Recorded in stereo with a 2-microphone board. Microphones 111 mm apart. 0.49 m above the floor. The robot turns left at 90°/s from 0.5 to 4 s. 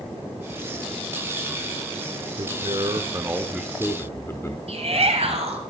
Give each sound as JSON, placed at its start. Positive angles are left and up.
{"t": 2.4, "sound": "a man speaking", "azimuth_deg": -65, "distance_m": 0.9}
{"t": 4.7, "sound": "a shout", "side_deg": -65, "distance_m": 2.5}